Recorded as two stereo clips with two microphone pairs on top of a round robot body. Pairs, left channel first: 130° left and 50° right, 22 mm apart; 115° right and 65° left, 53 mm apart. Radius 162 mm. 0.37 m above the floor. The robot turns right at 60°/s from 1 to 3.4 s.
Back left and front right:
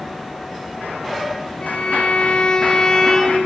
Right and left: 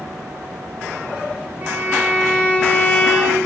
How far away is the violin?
About 3.5 m.